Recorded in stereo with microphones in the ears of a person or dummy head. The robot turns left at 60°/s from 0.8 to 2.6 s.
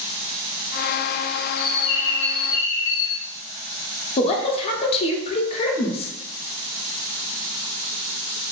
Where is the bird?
110° left, 0.5 m; by 3.2 s 45° left, 0.5 m.